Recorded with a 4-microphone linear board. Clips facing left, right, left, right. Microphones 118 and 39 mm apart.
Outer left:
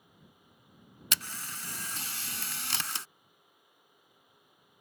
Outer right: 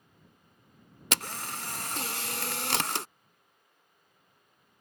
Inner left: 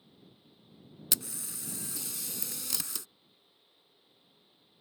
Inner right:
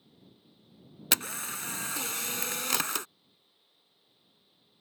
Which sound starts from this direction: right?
A camera shutter, at 1.1 s.